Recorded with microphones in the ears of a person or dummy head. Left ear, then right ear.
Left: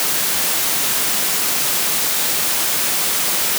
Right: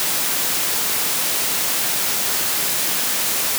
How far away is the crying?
No crying in this recording.